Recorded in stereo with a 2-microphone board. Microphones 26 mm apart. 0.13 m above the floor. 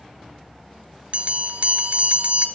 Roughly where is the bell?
Right.